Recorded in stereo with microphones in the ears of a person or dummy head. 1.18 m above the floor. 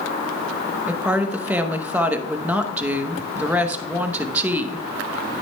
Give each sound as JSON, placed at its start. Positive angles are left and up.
{"t": 0.9, "sound": "a woman speaking", "side_deg": -10, "distance_m": 0.9}